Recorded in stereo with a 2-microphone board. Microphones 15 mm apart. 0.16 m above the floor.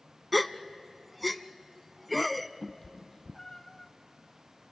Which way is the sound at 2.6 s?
25° left (ahead or behind).